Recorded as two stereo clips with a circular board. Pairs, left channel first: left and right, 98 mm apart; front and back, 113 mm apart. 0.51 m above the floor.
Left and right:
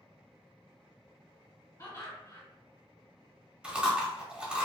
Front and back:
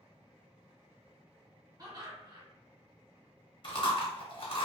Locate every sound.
1.8 s laughter: 140° left, 1.9 m
3.6 s chewing: 15° right, 0.8 m